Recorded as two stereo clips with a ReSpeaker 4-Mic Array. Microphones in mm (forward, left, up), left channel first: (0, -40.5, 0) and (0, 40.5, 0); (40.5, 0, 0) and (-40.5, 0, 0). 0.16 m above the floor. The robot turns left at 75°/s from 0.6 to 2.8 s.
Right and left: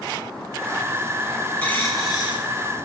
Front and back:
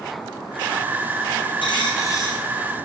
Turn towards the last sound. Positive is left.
turn(degrees=-105)